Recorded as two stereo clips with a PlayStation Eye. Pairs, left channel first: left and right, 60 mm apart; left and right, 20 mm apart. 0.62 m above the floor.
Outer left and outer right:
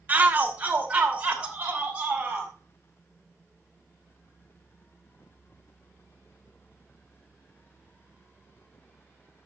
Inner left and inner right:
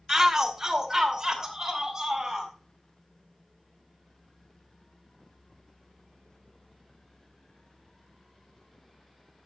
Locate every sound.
0.1 s a shout: 25° right (ahead or behind), 1.4 m; by 2.5 s 20° right (ahead or behind), 4 m